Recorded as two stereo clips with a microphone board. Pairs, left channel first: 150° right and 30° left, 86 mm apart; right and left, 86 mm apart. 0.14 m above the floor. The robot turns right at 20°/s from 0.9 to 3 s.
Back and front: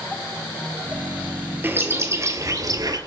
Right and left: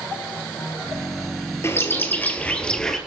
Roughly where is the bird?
Ahead right.